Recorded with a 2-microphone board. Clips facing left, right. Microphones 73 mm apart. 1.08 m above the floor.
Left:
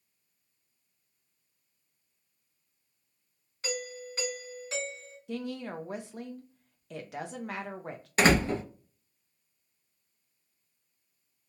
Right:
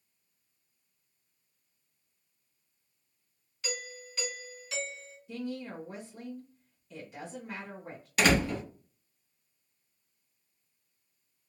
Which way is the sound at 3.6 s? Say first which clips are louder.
Left 4 dB; 40° left (ahead or behind).